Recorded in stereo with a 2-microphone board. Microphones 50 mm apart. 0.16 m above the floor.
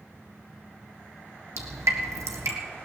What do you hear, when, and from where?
1.6 s dripping: 80° right, 1.7 m